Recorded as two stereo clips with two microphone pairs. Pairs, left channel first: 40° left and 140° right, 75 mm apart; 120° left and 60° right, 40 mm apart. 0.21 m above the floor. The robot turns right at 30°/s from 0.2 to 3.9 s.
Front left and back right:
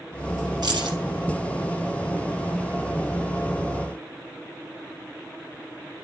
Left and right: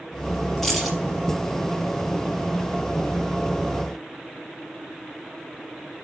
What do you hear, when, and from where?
0.6 s keys jangling: 155° right, 3 m; by 1.0 s 145° right, 3 m